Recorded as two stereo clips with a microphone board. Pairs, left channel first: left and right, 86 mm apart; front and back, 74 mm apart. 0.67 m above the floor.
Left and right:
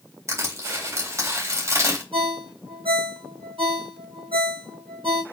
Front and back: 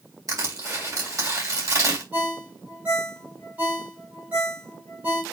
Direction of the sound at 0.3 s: 145° right.